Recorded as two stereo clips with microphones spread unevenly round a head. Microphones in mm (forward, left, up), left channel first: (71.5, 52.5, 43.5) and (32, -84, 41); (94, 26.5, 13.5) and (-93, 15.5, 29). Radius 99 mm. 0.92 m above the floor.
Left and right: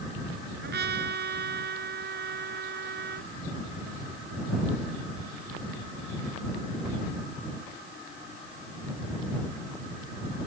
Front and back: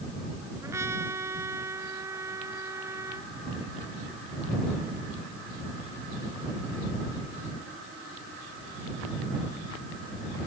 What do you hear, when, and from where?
0.6 s a trumpet: 100° right